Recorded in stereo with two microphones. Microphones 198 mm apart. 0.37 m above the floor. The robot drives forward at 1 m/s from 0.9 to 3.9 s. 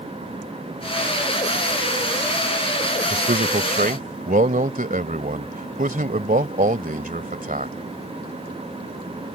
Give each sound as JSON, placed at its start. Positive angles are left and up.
{"t": 3.1, "sound": "a man speaking", "side_deg": -50}